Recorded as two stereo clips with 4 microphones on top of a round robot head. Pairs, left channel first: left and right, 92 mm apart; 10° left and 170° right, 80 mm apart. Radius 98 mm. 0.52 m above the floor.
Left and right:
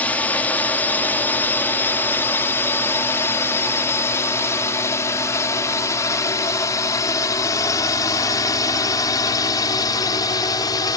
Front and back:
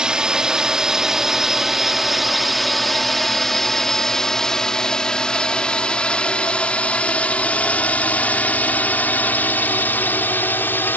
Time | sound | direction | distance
0.0 | a drone | 125° left | ?